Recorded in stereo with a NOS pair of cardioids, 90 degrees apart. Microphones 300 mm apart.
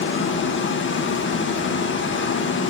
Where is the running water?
40° left, 2.0 m.